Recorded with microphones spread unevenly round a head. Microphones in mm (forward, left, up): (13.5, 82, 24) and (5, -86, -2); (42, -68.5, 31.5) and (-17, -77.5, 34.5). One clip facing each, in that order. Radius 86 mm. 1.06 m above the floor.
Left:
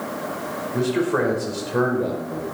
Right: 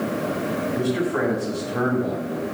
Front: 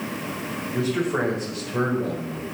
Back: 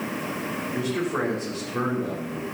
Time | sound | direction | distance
0.7 | a man speaking | 90° left | 4.5 m